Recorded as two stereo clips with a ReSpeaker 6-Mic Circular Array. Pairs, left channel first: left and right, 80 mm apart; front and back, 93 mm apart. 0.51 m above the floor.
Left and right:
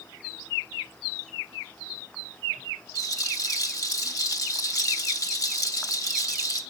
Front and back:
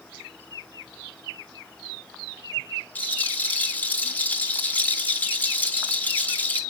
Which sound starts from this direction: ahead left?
A rattle, at 3.0 s.